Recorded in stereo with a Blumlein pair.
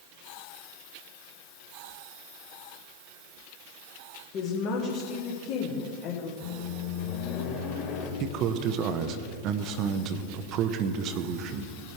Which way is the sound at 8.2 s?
35° right.